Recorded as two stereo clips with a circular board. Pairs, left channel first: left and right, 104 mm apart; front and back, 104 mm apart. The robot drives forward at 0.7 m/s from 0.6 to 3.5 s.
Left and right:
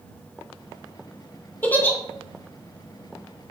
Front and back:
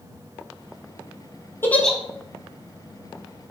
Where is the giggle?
40° left, 0.6 m; by 2.0 s 95° left, 0.6 m.